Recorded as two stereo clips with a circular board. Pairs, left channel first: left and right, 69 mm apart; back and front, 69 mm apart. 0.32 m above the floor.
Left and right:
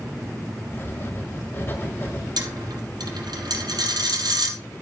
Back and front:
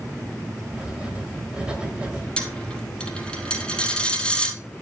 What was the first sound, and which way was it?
Writing, 65° left.